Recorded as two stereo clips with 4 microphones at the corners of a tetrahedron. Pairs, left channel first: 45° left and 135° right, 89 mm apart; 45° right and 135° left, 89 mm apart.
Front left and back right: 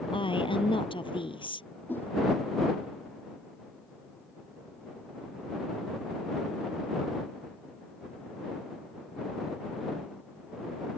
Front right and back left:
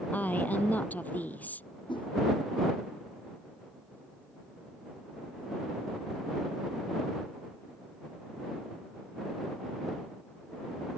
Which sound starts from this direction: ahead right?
A whoosh, at 1.9 s.